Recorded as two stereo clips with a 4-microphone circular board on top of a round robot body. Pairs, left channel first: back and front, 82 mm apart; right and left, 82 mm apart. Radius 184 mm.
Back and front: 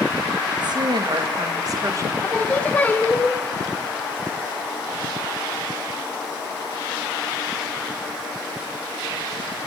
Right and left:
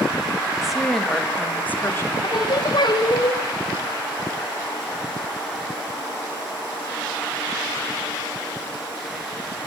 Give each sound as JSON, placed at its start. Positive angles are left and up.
{"t": 0.6, "sound": "a woman speaking", "azimuth_deg": 5, "distance_m": 1.7}
{"t": 2.2, "sound": "singing", "azimuth_deg": -110, "distance_m": 1.2}